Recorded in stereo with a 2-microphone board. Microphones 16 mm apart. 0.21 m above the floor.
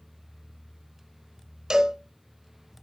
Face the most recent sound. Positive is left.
turn(degrees=-40)  # may be behind; listen again after turning